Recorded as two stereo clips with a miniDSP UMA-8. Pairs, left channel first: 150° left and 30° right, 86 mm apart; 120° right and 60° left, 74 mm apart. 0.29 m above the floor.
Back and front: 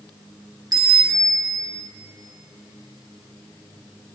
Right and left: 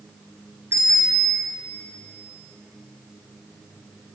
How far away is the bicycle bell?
About 2.5 m.